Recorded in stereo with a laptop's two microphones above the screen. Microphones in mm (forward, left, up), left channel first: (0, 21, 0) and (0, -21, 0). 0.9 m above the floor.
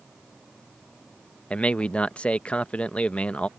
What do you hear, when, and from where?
1.5 s a man speaking: 30° left (ahead or behind)